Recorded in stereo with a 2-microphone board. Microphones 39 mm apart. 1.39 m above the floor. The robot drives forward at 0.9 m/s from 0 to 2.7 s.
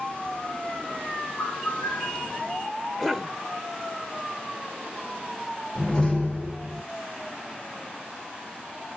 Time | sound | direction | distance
1.4 | a bird | 80° left | 3.5 m
3.0 | a cough | centre (ahead or behind) | 1.0 m
5.8 | a door slam | 5° left (ahead or behind) | 8 m